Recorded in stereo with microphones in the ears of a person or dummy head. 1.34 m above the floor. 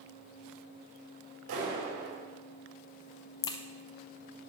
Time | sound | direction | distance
1.5 | a clap | 70° right (ahead or behind) | 6 m
3.4 | a crack | 15° left (ahead or behind) | 0.7 m